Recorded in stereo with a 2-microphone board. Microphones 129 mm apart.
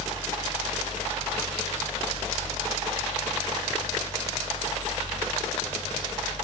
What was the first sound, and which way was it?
Only background noise.